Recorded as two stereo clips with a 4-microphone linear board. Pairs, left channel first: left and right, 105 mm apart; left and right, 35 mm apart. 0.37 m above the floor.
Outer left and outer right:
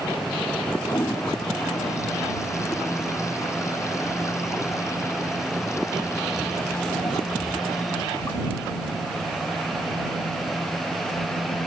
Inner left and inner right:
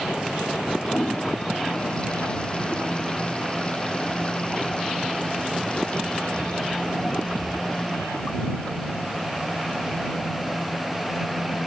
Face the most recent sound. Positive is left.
turn(degrees=30)  # may be behind; listen again after turning